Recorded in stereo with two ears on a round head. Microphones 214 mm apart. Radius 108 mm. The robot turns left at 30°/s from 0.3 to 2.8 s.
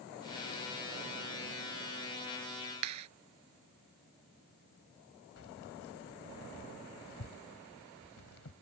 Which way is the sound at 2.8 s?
80° right.